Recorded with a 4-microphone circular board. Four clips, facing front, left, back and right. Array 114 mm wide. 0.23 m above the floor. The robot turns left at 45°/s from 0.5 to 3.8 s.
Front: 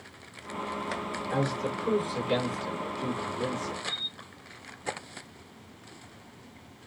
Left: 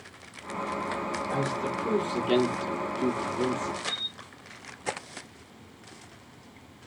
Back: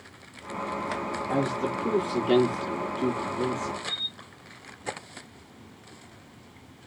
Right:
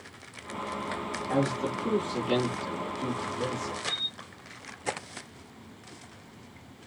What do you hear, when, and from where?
1.3 s a man speaking: 170° right, 7 m; by 3.8 s 80° left, 7 m
3.9 s a camera shutter: 100° left, 5 m